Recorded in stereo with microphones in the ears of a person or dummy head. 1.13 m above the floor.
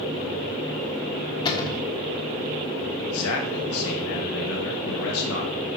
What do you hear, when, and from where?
1.4 s a cupboard door: 25° left (ahead or behind), 1.1 m
3.0 s a man speaking: 75° left (ahead or behind), 1.0 m